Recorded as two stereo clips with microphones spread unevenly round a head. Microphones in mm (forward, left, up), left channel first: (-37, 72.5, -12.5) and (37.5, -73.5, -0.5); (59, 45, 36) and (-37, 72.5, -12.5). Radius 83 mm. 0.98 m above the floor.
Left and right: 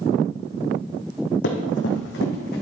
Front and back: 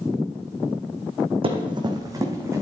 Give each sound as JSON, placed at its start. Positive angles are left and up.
{"t": 1.4, "sound": "running footsteps", "azimuth_deg": 120, "distance_m": 2.0}